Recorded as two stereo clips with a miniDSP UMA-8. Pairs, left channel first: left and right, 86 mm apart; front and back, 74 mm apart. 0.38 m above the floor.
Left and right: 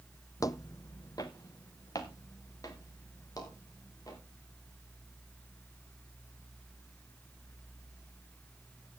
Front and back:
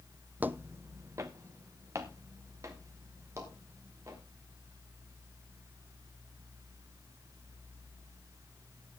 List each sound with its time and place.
0.4 s footsteps: 120° left, 0.5 m; by 4.2 s 135° left, 5.5 m